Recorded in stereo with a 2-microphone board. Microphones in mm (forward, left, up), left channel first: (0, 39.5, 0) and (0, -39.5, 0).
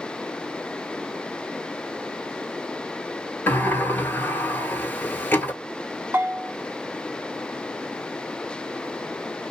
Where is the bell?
30° right (ahead or behind), 0.7 m.